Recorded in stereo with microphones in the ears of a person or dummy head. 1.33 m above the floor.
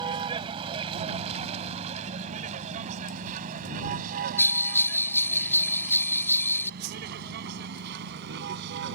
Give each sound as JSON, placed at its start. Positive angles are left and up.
{"t": 0.0, "sound": "a vehicle", "side_deg": -25}
{"t": 4.4, "sound": "a bell", "side_deg": 10}
{"t": 6.8, "sound": "a whoosh", "side_deg": -55}